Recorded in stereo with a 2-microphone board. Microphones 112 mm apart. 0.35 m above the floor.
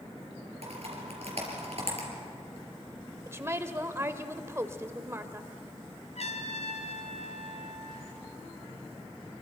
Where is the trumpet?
85° left, 1.6 m.